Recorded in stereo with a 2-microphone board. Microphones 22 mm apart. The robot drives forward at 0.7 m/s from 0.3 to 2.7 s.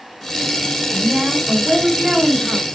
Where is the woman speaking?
30° right (ahead or behind), 5 m; by 2.6 s 40° right (ahead or behind), 4 m.